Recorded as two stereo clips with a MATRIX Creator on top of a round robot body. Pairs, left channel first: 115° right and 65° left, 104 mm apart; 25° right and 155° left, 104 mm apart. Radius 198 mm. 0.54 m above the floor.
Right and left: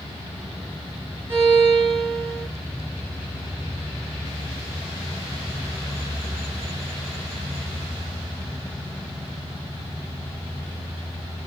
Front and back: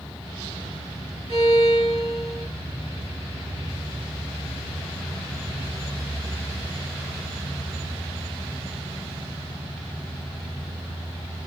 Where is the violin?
135° left, 6 m.